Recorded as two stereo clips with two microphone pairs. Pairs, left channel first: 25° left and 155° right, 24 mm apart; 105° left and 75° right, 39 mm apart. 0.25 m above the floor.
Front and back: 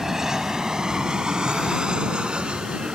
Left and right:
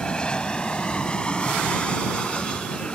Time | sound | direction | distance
0.0 | an aircraft | 145° left | ?